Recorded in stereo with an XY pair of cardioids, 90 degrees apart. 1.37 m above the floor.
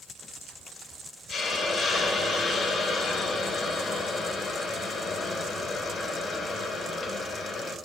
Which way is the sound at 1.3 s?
60° left.